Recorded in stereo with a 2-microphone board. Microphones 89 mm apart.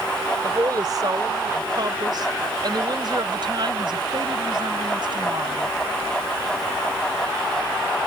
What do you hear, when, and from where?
0.4 s a woman speaking: 45° right (ahead or behind); by 5.7 s 60° right (ahead or behind)